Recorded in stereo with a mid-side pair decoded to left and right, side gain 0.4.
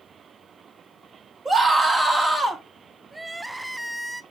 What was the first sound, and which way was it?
A scream, 35° right.